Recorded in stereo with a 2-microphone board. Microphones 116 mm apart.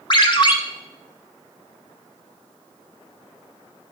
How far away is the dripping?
I don't hear dripping.